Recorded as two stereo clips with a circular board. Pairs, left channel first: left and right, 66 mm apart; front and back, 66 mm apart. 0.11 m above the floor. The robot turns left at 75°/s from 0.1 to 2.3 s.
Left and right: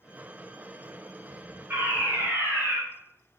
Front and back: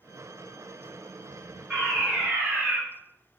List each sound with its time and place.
1.7 s a fire alarm: 80° right, 3 m; by 2.8 s 125° right, 3 m